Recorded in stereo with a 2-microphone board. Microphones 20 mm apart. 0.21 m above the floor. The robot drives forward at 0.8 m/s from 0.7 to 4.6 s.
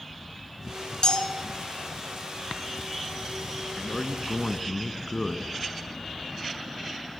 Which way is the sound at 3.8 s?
30° left (ahead or behind).